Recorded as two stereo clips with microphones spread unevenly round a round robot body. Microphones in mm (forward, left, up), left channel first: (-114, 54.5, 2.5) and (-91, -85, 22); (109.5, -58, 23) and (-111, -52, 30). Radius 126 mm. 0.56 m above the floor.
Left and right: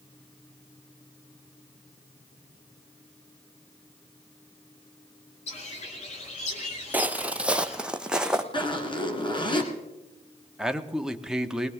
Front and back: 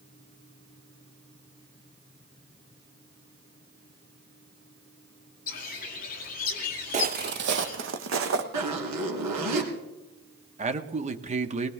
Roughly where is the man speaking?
Behind.